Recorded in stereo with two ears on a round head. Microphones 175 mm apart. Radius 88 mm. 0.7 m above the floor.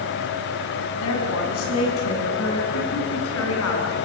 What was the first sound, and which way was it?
A woman speaking, 80° left.